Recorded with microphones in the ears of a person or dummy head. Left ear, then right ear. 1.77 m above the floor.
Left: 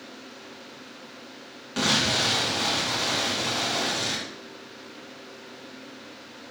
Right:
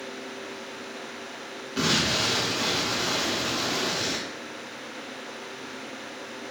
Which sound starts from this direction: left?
An explosion, at 1.8 s.